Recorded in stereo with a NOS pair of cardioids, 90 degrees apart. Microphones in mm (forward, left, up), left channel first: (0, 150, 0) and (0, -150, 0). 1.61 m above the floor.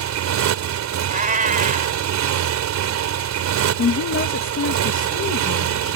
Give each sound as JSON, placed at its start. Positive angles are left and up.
{"t": 0.0, "sound": "a motorcycle", "azimuth_deg": -70}
{"t": 1.1, "sound": "a cat meowing", "azimuth_deg": -25}
{"t": 3.8, "sound": "a woman speaking", "azimuth_deg": 45}